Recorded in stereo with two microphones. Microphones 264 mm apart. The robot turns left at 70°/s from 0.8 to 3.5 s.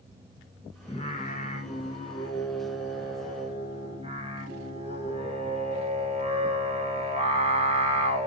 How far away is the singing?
About 0.9 m.